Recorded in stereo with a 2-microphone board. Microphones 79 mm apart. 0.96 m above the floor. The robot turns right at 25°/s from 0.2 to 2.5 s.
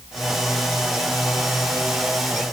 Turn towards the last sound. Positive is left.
No sound to turn to.